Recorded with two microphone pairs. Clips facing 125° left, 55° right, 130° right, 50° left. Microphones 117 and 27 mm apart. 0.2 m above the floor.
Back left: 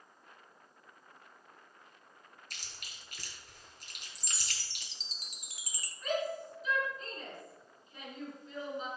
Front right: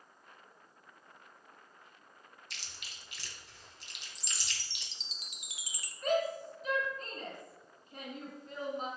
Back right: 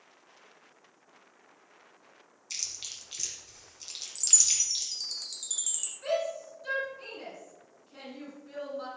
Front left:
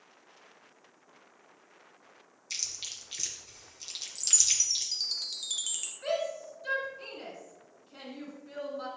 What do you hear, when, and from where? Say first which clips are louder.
2.5 s chewing: front right 1 dB, front left 1 dB; 130° left, 2 m
4.2 s a chime: even, even; 95° left, 0.9 m
6.0 s a shout: front right 3 dB, back right 1 dB; 30° right, 2.5 m